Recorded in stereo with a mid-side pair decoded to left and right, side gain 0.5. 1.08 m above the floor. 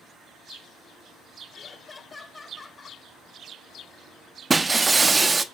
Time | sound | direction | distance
1.5 | laughter | 30° left | 5 m
4.5 | breaking glass | 25° right | 1.1 m